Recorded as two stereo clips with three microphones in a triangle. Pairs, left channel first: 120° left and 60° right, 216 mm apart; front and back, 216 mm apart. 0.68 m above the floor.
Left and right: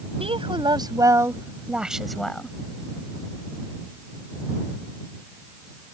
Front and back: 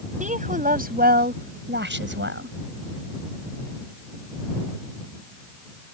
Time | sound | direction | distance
0.2 | a woman speaking | 125° right | ?